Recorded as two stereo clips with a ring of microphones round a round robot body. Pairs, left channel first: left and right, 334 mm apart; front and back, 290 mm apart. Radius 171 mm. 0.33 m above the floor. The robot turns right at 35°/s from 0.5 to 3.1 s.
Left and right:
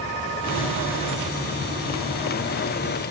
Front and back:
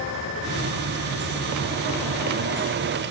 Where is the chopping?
No chopping in this recording.